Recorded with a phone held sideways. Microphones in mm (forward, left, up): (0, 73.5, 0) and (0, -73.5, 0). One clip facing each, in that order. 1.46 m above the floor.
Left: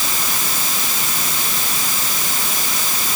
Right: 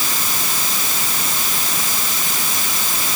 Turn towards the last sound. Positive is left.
No sound to turn to.